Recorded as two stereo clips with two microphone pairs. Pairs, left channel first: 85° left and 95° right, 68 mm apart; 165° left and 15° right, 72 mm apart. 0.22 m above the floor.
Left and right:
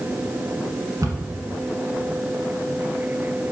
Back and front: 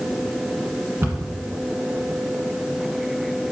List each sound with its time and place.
1.0 s a cupboard door: 65° right, 1.3 m